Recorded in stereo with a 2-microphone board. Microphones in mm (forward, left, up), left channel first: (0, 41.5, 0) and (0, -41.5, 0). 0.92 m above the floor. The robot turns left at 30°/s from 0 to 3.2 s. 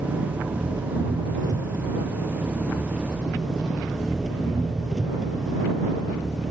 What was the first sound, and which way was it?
An engine running, 85° right.